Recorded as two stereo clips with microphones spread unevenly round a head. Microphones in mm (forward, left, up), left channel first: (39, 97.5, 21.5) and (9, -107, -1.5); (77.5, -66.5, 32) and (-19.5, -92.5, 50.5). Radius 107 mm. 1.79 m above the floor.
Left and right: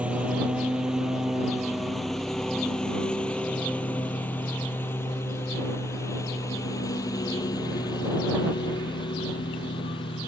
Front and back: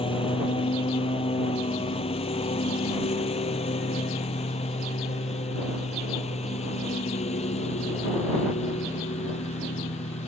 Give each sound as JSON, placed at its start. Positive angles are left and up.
{"t": 0.0, "sound": "a lawn mower", "azimuth_deg": -15}